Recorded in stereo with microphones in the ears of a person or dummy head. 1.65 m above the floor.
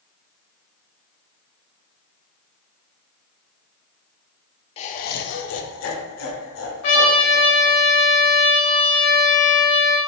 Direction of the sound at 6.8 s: 40° left (ahead or behind).